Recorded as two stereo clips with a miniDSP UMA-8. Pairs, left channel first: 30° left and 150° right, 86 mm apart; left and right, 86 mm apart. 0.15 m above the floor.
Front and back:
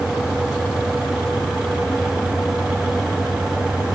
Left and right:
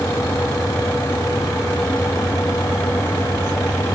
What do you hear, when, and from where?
Only background noise.